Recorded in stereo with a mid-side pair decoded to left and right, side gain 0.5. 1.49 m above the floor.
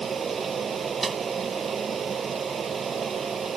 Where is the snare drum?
25° right.